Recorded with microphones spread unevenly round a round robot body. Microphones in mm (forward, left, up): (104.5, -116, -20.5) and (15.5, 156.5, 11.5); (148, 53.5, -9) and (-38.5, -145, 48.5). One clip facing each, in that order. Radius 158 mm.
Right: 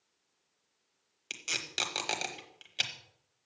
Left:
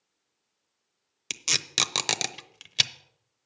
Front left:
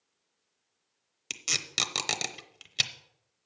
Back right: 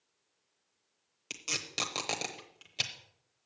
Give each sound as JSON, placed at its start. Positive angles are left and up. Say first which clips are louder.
{"t": 1.3, "sound": "tape being pulled", "louder": "left 5 dB, even", "azimuth_deg": 95, "distance_m": 0.8}